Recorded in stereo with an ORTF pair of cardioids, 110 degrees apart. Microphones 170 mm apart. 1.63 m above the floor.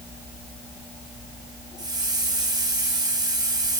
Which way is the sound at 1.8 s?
25° right.